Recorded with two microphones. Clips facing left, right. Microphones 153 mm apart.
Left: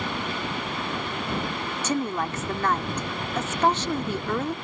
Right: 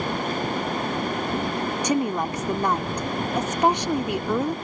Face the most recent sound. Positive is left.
turn(degrees=-15)  # may be behind; listen again after turning